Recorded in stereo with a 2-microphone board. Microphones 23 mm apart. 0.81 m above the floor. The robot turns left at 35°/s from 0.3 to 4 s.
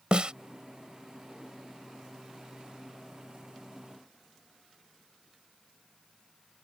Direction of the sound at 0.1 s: 45° right (ahead or behind).